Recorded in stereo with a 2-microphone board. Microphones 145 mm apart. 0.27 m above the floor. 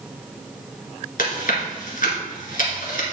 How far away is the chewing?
About 1.9 m.